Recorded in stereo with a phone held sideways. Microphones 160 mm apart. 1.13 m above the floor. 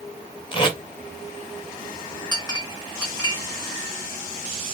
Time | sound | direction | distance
0.5 | tape being pulled | 30° left (ahead or behind) | 1.6 m
2.3 | a clink | 25° left (ahead or behind) | 1.9 m